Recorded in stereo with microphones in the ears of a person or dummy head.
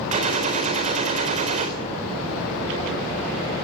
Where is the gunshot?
40° right (ahead or behind), 3.5 m.